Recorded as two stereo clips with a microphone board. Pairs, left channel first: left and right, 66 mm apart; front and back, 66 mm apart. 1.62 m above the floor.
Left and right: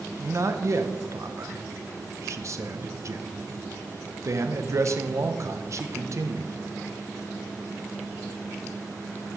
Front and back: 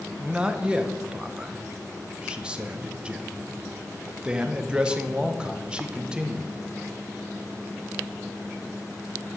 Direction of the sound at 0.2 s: 110° right.